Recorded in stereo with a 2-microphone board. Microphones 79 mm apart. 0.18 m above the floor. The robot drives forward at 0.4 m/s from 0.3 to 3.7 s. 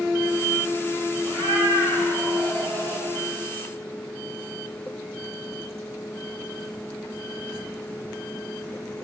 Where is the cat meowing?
60° right (ahead or behind), 10 m; by 3.1 s 65° right (ahead or behind), 9.5 m.